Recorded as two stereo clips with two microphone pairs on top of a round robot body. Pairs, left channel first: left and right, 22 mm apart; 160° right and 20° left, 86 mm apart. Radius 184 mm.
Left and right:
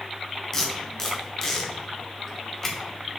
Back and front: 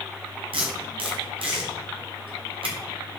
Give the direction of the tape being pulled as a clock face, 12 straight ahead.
11 o'clock.